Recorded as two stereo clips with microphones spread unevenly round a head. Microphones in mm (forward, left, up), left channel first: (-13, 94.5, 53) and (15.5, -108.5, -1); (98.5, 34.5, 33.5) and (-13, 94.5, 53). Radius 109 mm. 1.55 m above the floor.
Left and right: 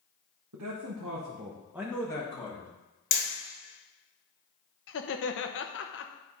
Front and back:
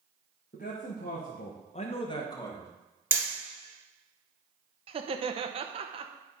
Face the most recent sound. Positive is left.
turn(degrees=115)